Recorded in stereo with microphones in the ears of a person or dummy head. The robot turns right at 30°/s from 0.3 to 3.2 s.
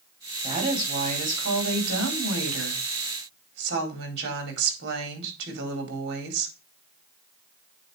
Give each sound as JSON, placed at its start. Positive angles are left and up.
{"t": 0.4, "sound": "a woman speaking", "azimuth_deg": -145, "distance_m": 4.0}